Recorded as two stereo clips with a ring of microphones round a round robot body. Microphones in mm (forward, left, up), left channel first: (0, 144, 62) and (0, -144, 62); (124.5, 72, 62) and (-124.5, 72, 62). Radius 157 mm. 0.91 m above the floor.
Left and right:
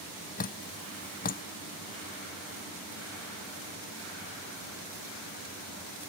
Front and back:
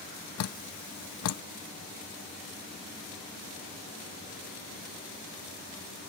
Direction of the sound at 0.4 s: 30° left.